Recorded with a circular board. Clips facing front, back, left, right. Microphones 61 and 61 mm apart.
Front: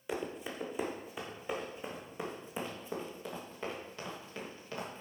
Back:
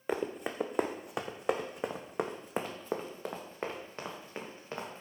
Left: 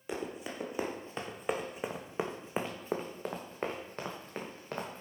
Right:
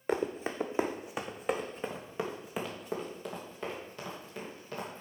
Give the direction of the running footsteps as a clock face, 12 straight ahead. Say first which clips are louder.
Back 4 dB, right 6 dB; 5 o'clock.